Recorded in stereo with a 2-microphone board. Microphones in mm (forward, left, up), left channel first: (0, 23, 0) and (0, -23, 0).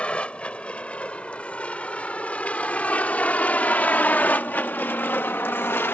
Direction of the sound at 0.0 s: 25° left (ahead or behind).